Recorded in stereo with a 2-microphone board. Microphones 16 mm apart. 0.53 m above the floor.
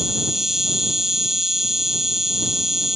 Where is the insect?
25° right (ahead or behind).